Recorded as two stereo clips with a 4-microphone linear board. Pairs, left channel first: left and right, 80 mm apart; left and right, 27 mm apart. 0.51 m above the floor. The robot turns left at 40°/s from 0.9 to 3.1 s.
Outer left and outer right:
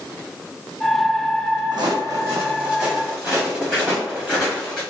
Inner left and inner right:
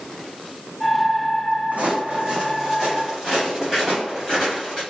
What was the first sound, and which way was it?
Footsteps, 60° right (ahead or behind).